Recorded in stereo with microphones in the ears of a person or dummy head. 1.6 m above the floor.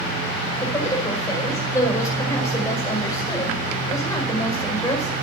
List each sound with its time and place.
0.6 s a woman speaking: 20° left (ahead or behind), 6 m